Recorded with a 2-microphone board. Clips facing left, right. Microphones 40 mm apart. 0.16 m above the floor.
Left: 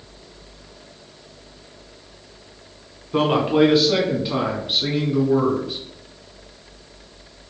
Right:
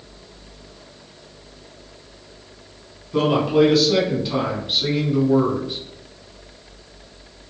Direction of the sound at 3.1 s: 30° left (ahead or behind).